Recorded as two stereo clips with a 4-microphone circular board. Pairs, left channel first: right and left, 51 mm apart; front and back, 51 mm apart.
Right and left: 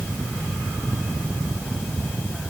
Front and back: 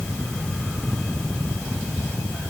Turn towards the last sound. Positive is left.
No sound to turn to.